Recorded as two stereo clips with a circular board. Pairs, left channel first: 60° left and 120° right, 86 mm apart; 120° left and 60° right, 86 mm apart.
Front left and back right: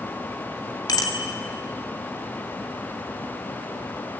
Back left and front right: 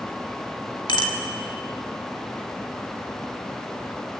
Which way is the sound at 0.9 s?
95° left.